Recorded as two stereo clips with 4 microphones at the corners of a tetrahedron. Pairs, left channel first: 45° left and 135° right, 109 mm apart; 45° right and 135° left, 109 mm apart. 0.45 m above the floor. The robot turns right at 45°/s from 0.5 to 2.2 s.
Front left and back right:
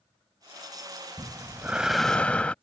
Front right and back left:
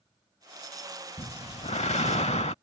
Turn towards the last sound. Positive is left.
turn(degrees=-35)